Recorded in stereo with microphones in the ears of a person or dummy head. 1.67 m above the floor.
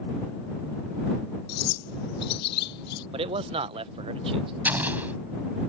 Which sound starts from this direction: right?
A man speaking, at 3.1 s.